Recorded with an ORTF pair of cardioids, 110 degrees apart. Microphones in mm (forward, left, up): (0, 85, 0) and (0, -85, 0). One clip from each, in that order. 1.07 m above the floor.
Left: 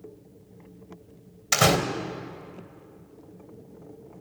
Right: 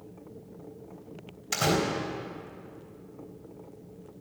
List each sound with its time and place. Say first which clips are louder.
1.5 s a door slam: left 6 dB; 60° left, 3.5 m